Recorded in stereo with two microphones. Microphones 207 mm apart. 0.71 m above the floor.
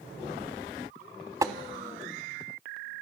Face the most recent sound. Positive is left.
turn(degrees=-15)  # may be behind; listen again after turning